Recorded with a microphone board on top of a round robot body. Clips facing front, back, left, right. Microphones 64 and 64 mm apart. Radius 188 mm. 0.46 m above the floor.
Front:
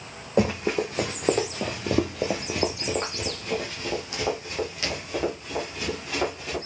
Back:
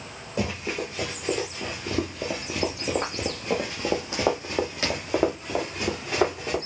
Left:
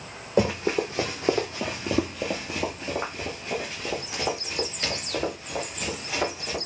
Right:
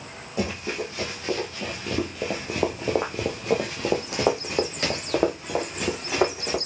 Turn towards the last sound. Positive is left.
turn(degrees=-125)